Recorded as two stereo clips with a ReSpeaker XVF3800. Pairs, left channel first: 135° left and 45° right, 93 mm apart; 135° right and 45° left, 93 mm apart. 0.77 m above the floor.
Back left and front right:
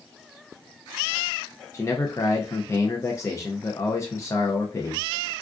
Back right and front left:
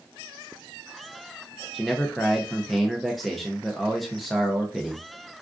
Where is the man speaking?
135° left, 0.5 m.